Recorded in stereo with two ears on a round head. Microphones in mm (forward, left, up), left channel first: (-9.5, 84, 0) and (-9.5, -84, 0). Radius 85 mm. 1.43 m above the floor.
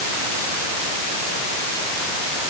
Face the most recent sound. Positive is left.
No sound to turn to.